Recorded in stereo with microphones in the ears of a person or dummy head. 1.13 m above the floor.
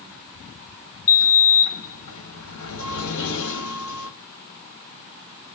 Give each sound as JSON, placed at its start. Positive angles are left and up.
{"t": 1.1, "sound": "a sliding door", "side_deg": 80, "distance_m": 2.5}